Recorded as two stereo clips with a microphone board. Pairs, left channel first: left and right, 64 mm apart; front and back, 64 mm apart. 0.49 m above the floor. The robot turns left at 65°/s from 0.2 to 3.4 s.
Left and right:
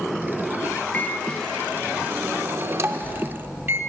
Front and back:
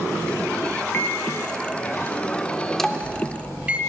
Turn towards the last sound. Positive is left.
turn(degrees=-120)